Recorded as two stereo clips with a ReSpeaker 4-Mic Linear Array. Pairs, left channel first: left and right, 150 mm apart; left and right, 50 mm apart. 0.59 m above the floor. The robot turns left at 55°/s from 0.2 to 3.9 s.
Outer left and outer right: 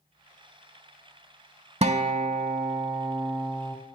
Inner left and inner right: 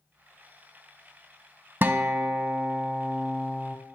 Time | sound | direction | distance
1.8 | a guitar | 80° right | 0.5 m